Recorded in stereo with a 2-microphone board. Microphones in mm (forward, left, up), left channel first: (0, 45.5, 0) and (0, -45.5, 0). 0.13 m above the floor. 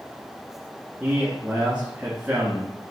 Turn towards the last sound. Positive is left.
turn(degrees=-15)  # may be behind; listen again after turning